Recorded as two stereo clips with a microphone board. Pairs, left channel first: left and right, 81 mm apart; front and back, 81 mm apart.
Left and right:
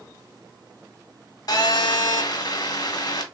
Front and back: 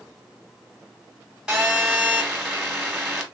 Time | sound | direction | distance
1.5 | a phone buzzing | 100° left | 0.9 m